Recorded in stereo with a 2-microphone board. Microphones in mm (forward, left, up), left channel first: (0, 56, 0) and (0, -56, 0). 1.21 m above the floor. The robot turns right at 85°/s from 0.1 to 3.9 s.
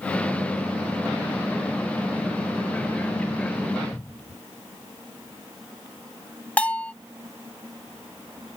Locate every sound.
3.9 s a cupboard door: 10° left (ahead or behind)
6.6 s a bell: 10° left (ahead or behind)